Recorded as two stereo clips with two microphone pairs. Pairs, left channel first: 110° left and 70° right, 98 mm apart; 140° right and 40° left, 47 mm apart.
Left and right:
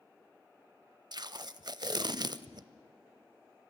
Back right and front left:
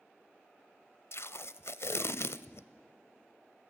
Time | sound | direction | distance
1.1 | tape being pulled | 115° right | 0.6 m